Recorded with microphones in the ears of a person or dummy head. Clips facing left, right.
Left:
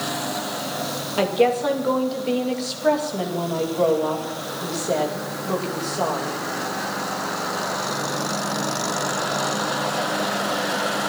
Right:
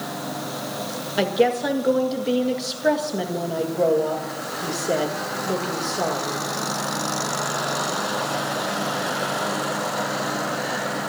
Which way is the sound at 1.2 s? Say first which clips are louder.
Left 1 dB; 15° right (ahead or behind).